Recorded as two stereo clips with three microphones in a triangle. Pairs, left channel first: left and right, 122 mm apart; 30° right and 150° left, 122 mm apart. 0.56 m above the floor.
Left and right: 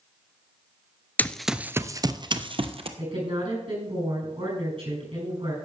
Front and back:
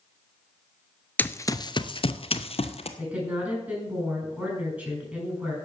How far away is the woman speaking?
About 7.5 m.